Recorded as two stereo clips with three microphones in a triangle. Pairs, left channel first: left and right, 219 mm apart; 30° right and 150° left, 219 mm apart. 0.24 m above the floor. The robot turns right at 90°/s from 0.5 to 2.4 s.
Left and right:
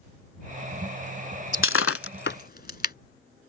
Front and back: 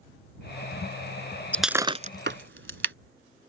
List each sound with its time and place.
1.5 s breaking glass: 50° left; by 3.0 s 130° left